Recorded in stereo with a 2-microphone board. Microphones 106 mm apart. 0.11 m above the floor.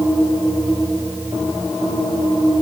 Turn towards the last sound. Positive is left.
No sound to turn to.